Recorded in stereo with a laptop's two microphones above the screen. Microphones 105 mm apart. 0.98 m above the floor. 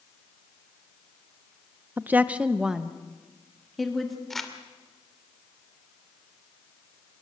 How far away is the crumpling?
About 2.5 m.